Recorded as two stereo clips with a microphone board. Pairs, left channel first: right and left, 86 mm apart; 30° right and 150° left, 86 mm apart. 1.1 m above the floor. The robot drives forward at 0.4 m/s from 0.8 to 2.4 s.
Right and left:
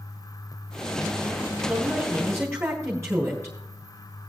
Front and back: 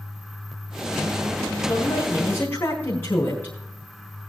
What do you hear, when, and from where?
1.7 s a man speaking: 30° left, 5 m